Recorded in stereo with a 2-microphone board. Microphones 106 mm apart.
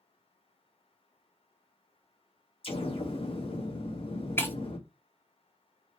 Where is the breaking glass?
20° left (ahead or behind), 0.6 m.